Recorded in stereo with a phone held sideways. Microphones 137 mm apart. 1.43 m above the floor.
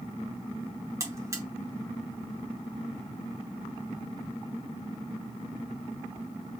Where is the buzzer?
20° right (ahead or behind), 0.8 m.